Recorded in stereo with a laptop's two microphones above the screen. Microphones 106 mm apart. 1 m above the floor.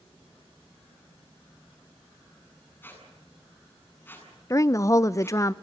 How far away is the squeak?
About 8 m.